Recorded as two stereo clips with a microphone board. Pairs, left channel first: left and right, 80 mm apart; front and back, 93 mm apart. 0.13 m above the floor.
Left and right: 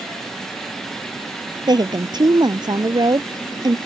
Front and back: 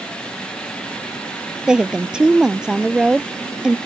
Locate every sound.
1.7 s a woman speaking: 100° right